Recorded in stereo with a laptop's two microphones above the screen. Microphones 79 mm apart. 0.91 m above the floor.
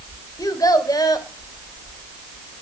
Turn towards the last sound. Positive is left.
turn(degrees=50)  # may be behind; listen again after turning